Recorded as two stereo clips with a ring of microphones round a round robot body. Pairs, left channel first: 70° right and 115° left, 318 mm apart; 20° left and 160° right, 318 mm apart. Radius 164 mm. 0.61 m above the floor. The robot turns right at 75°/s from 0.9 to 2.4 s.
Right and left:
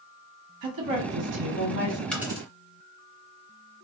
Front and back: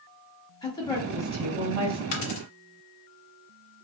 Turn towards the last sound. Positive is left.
turn(degrees=40)